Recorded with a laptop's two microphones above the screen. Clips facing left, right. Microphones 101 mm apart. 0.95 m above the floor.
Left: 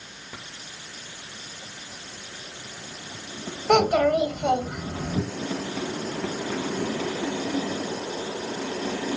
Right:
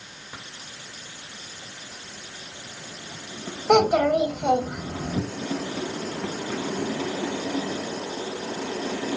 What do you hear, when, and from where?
3.7 s a child speaking: 10° right (ahead or behind), 1.1 m